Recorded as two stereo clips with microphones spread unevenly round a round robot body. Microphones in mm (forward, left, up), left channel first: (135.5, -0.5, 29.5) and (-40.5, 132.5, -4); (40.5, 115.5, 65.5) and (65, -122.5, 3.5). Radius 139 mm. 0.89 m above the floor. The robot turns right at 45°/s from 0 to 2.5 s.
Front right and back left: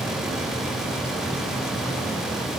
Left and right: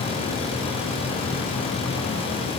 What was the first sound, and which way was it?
Only background noise.